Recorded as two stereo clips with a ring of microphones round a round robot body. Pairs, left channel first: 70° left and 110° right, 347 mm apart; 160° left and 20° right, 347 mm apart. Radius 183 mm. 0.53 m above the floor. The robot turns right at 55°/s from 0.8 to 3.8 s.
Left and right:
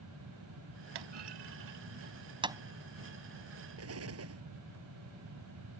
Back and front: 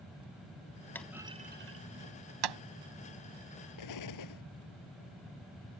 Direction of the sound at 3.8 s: 165° right.